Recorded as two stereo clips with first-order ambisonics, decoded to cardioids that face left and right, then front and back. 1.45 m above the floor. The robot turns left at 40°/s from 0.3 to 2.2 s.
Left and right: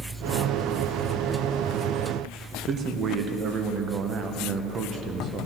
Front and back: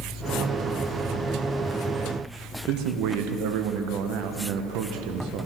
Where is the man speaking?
150° right, 0.8 m.